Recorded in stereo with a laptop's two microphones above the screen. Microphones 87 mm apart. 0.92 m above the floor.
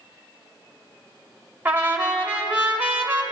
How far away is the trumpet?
About 0.7 m.